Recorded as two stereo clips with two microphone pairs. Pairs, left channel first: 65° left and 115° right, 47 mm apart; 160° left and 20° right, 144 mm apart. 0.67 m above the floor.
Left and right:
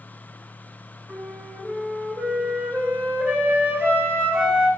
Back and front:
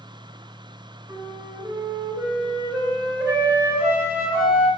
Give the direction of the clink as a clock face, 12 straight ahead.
I don't hear a clink.